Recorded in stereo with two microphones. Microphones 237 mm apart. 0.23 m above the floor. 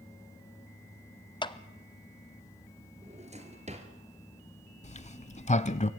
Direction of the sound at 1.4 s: 20° left (ahead or behind).